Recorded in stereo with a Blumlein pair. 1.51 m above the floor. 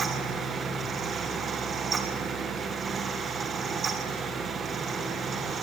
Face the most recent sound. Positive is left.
turn(degrees=-20)